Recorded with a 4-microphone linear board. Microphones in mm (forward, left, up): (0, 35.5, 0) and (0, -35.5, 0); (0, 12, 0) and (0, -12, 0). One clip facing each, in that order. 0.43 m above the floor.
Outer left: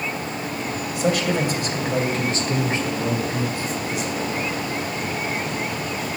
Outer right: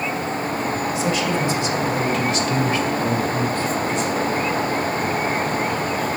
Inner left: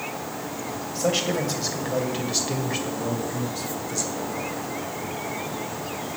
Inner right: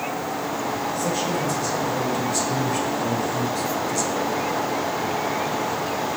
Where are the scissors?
No scissors in this recording.